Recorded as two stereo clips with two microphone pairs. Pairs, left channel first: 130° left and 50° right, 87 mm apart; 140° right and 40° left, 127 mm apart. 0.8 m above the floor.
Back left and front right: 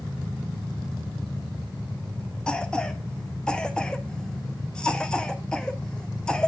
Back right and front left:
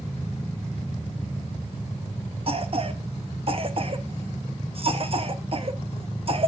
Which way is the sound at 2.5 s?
50° left.